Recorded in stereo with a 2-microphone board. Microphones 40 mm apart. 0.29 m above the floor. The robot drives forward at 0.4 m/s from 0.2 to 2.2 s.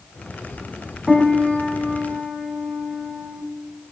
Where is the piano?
10° right (ahead or behind), 1.0 m.